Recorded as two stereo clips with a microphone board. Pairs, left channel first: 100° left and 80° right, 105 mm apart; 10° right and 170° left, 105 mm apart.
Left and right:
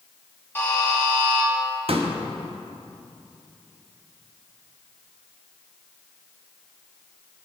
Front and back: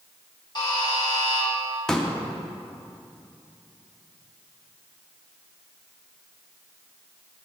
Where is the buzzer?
30° left, 1.4 m.